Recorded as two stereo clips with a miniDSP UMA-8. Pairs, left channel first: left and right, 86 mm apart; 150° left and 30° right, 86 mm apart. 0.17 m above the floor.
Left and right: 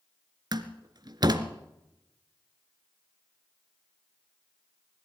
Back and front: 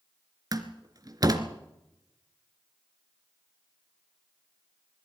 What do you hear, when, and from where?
0.5 s a door slam: 65° right, 1.6 m